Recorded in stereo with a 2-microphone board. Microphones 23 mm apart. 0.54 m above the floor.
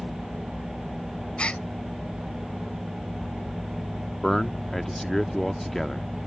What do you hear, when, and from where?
1.4 s a gasp: 60° left (ahead or behind)
4.2 s a man speaking: 10° left (ahead or behind)